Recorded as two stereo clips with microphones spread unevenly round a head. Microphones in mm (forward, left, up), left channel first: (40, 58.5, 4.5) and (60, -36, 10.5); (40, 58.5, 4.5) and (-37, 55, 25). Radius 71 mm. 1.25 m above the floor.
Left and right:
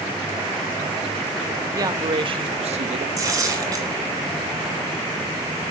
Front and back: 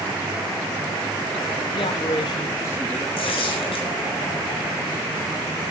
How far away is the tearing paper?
About 5 m.